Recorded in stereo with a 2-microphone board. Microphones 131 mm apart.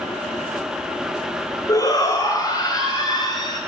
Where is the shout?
25° left (ahead or behind), 2 m; by 3.6 s 35° left (ahead or behind), 5 m.